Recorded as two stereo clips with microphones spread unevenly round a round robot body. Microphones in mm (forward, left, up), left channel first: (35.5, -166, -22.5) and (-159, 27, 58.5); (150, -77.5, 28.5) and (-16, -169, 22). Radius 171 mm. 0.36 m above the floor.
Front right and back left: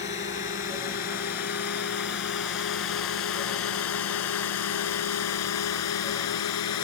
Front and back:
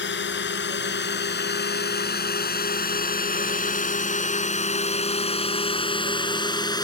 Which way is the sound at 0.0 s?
20° left.